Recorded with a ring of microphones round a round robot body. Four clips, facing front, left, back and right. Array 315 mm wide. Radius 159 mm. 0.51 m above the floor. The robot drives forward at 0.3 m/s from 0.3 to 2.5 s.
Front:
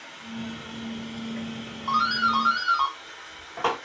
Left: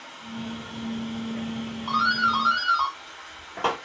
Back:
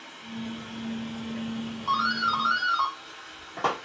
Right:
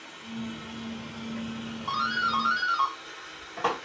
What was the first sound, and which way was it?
Running water, 60° right.